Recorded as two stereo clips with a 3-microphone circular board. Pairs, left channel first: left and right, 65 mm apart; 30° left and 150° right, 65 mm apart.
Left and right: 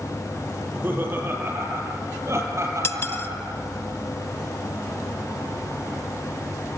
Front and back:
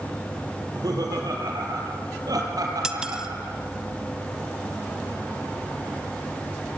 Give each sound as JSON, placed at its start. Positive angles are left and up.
{"t": 0.6, "sound": "laughter", "azimuth_deg": -150, "distance_m": 6.5}
{"t": 2.8, "sound": "cutlery clinking", "azimuth_deg": 135, "distance_m": 1.1}